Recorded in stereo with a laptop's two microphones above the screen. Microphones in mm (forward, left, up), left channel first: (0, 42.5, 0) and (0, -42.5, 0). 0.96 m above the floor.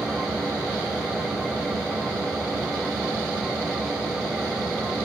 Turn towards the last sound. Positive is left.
turn(degrees=0)  # may be behind; listen again after turning